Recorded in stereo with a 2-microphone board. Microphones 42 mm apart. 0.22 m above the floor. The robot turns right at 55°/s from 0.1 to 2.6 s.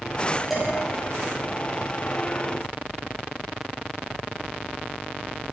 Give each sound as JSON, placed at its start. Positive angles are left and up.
{"t": 0.5, "sound": "dishes clattering", "side_deg": -5, "distance_m": 4.5}